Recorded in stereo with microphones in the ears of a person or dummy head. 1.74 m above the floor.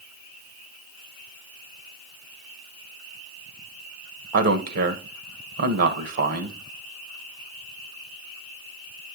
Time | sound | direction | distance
4.3 | a man speaking | 60° right (ahead or behind) | 1.3 m